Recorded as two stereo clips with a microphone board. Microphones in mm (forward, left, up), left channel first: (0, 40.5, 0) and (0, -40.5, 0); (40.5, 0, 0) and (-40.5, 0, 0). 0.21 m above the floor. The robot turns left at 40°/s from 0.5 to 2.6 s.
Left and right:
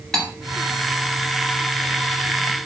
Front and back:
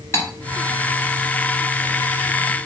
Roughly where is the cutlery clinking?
Ahead.